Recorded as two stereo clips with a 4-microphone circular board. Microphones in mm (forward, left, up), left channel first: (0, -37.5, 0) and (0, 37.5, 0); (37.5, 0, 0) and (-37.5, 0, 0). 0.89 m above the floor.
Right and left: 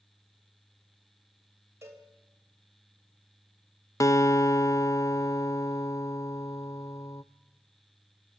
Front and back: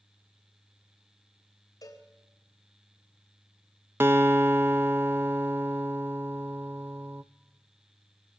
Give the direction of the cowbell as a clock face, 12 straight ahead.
11 o'clock.